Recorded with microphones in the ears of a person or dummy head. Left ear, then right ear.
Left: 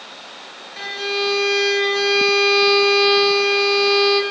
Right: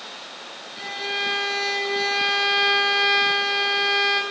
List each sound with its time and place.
0.8 s a violin: 30° left (ahead or behind), 9.5 m